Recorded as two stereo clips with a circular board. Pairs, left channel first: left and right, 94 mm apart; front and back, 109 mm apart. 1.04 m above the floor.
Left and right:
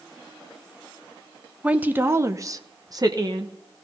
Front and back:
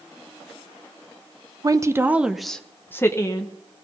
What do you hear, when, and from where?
1.6 s a woman speaking: 155° right, 0.8 m; by 3.5 s 50° right, 1.2 m